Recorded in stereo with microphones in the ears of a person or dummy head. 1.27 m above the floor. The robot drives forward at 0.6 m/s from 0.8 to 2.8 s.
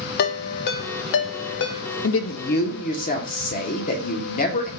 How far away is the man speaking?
About 0.5 m.